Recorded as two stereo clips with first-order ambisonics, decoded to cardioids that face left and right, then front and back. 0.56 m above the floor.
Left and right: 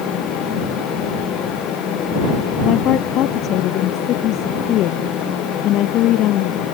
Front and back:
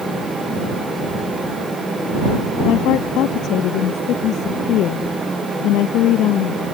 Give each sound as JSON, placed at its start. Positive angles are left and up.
{"t": 2.6, "sound": "a woman speaking", "azimuth_deg": 45}